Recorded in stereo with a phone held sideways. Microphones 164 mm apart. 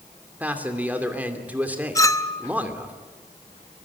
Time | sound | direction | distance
0.4 | a man speaking | 10° right (ahead or behind) | 2.5 m
1.9 | a clink | 20° left (ahead or behind) | 0.9 m